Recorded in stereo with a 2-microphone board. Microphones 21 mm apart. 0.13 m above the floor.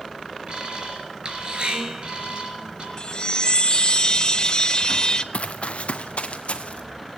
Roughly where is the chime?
Left.